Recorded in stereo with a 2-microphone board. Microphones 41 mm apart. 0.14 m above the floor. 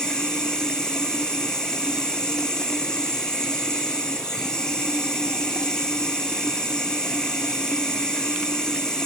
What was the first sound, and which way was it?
Running water, 20° left (ahead or behind).